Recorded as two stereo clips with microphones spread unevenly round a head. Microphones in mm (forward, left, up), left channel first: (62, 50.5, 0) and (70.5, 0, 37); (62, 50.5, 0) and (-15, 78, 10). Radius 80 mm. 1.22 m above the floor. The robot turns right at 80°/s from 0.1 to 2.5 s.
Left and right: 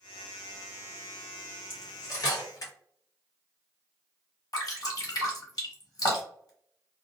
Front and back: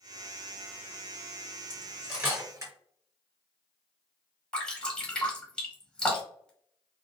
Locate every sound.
1.7 s cutlery clinking: 55° left, 1.4 m; by 2.7 s 115° left, 1.4 m
4.5 s dripping: 65° left, 1.4 m